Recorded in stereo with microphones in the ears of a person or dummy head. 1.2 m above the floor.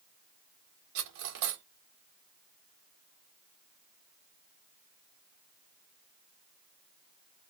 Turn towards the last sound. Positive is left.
turn(degrees=-65)  # may be behind; listen again after turning